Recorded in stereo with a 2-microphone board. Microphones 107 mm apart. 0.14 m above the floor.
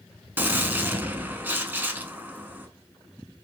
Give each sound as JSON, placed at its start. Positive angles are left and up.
{"t": 0.4, "sound": "a gunshot", "side_deg": -20, "distance_m": 0.5}